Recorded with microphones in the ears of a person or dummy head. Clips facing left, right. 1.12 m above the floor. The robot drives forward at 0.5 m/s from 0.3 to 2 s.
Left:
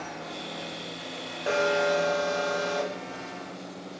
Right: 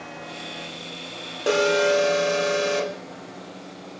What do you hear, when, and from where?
1.5 s an alarm: 45° right (ahead or behind), 0.6 m; by 3.0 s 30° right (ahead or behind), 0.8 m